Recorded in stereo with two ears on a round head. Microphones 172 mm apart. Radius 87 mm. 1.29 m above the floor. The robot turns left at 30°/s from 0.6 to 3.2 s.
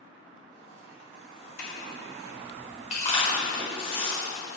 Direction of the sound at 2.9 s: 40° left (ahead or behind).